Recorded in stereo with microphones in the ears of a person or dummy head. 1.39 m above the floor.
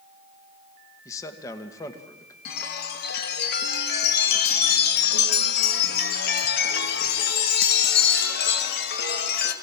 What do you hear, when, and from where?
1.1 s a man speaking: 20° left (ahead or behind), 2 m
2.5 s a chime: 60° left (ahead or behind), 2 m